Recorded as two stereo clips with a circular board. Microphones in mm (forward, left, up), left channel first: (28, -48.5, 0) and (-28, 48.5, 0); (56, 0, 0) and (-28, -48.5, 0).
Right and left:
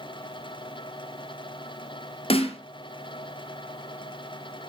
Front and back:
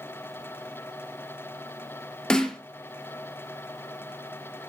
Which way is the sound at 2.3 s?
50° right.